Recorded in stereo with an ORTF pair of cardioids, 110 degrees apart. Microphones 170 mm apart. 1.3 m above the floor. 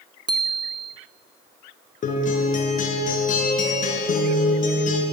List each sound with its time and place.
0.3 s a bicycle bell: 25° right, 2.5 m
2.0 s a guitar: 50° left, 5 m